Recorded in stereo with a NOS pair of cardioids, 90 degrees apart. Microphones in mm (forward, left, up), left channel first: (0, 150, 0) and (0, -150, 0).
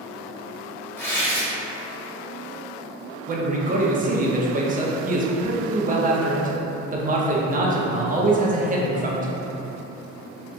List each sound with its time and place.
1.0 s tearing paper: 10° left, 0.9 m
3.3 s a man speaking: 25° right, 0.7 m